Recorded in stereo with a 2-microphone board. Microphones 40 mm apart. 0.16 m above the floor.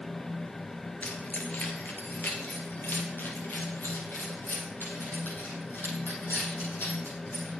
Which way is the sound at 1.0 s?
40° left (ahead or behind).